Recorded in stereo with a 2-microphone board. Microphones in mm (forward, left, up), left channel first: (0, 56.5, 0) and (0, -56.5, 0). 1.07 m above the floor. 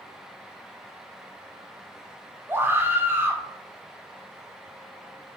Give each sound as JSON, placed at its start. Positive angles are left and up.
{"t": 2.5, "sound": "a scream", "side_deg": -20, "distance_m": 0.7}